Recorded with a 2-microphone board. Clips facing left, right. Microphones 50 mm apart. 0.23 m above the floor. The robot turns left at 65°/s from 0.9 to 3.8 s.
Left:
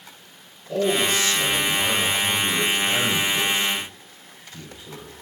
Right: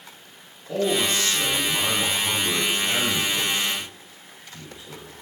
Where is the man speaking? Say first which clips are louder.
Left 2 dB; 60° right, 1.5 m; by 5.1 s 110° left, 1.5 m.